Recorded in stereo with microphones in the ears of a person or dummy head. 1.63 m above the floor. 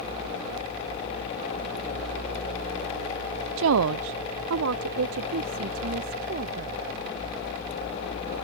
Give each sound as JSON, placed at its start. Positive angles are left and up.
{"t": 3.6, "sound": "a woman speaking", "side_deg": -75}